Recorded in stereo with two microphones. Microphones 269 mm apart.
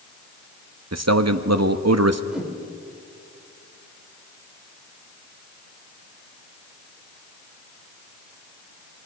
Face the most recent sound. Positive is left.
turn(degrees=-5)  # may be behind; listen again after turning